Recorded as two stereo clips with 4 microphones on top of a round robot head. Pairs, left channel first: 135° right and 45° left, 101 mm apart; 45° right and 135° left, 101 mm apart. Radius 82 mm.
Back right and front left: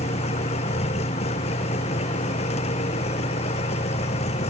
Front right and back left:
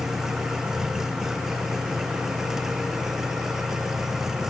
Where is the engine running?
140° right.